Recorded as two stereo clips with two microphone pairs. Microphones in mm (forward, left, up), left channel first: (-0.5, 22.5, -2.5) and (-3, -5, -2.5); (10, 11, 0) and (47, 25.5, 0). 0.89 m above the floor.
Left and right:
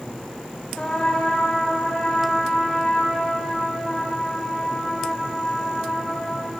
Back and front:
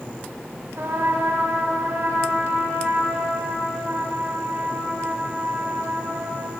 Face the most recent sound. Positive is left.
turn(degrees=40)